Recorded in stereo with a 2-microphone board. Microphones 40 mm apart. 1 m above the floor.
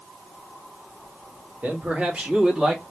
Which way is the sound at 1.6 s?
45° right (ahead or behind).